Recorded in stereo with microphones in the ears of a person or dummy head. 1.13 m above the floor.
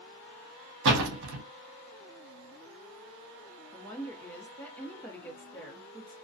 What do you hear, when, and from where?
0.8 s a door slam: 80° right, 0.8 m
3.7 s a woman speaking: 10° left (ahead or behind), 0.8 m